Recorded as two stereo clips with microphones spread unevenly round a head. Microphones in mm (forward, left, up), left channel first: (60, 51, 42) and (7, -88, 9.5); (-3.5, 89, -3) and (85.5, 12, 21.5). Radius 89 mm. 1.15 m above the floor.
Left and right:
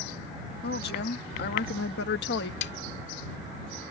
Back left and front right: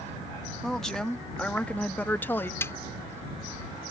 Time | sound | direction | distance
0.6 | a woman speaking | 55° left | ?
2.6 | a snare drum | 70° left | ?